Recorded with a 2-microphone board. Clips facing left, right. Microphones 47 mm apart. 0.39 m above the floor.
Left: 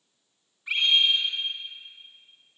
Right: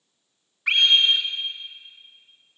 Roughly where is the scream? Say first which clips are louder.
Right 4 dB; right.